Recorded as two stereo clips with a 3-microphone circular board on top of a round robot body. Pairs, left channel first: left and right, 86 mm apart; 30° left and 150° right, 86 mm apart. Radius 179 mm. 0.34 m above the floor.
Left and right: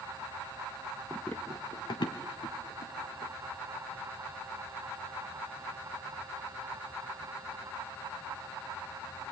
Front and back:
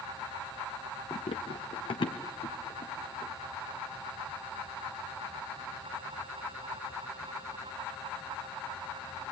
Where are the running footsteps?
10° right, 0.5 m; by 3.3 s 65° left, 3 m.